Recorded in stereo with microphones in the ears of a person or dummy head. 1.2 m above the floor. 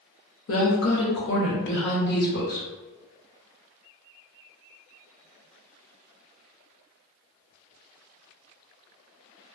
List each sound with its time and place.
0.5 s a woman speaking: 65° left (ahead or behind), 0.8 m; by 2.7 s 50° left (ahead or behind), 1.4 m